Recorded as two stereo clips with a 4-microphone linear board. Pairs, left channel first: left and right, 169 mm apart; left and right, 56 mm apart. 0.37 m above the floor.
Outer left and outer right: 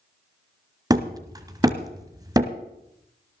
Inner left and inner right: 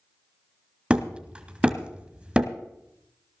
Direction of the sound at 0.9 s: 25° right (ahead or behind).